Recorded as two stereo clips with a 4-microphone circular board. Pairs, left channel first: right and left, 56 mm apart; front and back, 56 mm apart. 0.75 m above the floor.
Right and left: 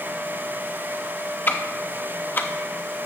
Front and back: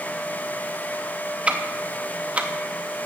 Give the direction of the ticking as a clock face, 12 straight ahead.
4 o'clock.